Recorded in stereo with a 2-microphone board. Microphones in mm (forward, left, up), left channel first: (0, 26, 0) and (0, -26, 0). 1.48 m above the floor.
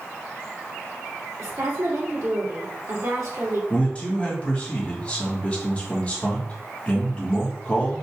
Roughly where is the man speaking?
Left.